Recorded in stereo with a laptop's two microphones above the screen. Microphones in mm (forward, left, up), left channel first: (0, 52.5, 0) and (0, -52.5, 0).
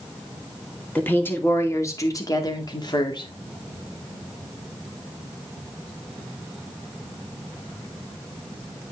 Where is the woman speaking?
15° left (ahead or behind), 2 m; by 3.3 s 50° left (ahead or behind), 2 m.